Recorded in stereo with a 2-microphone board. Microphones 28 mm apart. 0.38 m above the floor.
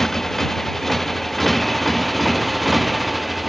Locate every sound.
0.0 s a motorcycle: 10° left (ahead or behind); by 3.5 s 5° right (ahead or behind)